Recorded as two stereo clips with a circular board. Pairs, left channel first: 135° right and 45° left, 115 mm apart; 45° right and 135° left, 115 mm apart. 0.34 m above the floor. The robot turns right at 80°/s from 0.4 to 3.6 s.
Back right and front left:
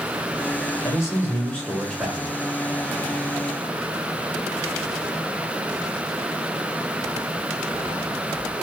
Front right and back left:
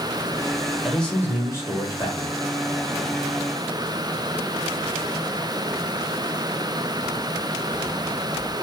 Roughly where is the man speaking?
Behind right.